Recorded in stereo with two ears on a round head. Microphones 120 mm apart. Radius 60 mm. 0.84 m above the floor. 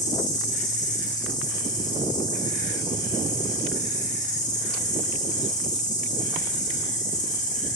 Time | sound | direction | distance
0.0 | an insect | 55° left (ahead or behind) | 8 m